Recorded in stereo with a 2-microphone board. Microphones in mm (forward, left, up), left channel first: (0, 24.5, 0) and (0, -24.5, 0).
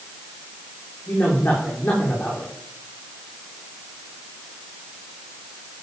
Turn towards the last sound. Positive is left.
turn(degrees=35)  # may be behind; listen again after turning